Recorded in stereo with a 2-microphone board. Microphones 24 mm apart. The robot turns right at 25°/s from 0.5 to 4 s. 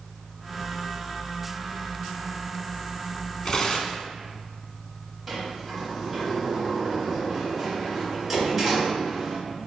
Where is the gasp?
No gasp in this recording.